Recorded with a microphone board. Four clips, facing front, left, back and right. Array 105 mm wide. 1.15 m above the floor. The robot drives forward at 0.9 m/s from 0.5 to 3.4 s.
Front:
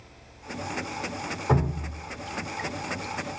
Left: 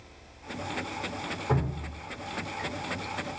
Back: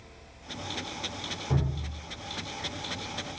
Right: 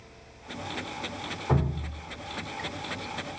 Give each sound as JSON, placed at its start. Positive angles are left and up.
{"t": 1.5, "sound": "dripping", "azimuth_deg": -5, "distance_m": 3.5}